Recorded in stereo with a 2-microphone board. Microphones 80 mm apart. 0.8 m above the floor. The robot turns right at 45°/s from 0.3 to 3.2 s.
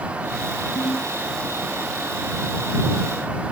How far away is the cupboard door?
No cupboard door in this recording.